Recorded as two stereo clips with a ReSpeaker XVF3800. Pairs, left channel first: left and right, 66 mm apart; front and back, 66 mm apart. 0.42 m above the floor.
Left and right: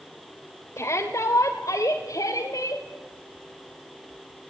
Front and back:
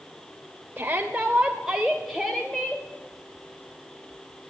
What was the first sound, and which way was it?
A shout, 120° left.